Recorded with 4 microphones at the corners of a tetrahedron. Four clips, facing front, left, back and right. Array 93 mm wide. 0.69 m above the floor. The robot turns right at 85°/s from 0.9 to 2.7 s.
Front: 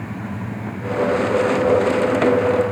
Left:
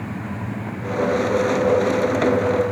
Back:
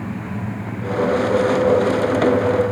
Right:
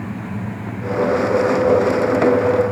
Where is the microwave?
No microwave in this recording.